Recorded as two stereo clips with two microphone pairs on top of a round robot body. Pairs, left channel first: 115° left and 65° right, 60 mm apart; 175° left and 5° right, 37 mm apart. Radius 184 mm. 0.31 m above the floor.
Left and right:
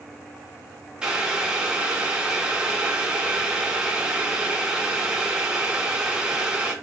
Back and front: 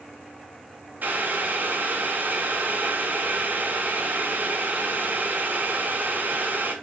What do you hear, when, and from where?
1.0 s boiling: 15° left, 1.4 m